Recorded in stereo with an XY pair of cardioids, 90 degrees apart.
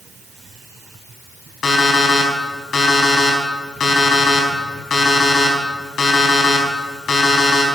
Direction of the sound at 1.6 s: 55° left.